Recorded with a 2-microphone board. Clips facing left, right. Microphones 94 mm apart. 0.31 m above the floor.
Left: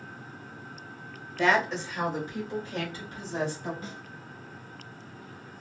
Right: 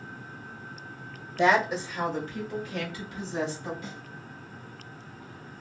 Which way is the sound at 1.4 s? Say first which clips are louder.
Right 2 dB; 20° right (ahead or behind).